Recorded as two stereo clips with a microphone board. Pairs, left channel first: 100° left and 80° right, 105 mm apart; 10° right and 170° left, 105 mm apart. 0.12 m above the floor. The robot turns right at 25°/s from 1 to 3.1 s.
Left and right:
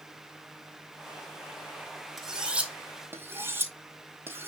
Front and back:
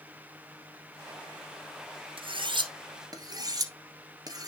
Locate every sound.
2.2 s cutlery clinking: 165° right, 1.5 m; by 4.5 s 145° right, 1.5 m